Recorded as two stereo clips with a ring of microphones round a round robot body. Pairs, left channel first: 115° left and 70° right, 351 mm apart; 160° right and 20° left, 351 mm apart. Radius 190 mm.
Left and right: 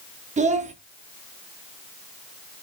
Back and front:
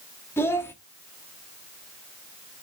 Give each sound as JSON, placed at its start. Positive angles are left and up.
{"t": 0.4, "sound": "a child speaking", "azimuth_deg": -85, "distance_m": 0.7}